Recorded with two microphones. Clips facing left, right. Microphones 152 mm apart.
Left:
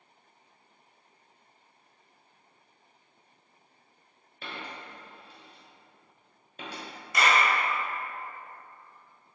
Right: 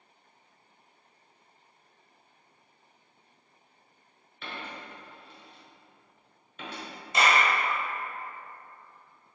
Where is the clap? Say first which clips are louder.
Even; 25° right (ahead or behind), 1.1 m.